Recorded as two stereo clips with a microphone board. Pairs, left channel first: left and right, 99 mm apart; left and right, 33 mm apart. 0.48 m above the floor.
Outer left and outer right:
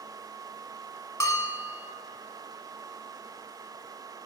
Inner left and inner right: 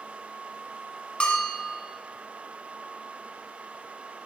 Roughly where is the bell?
Left.